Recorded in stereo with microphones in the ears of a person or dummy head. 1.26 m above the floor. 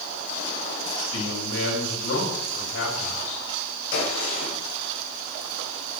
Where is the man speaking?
85° left, 6.5 m.